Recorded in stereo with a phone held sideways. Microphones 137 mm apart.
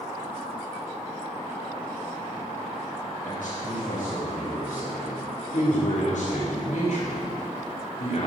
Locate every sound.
3.2 s a man speaking: 75° left (ahead or behind), 5 m; by 8.3 s 60° left (ahead or behind), 2.5 m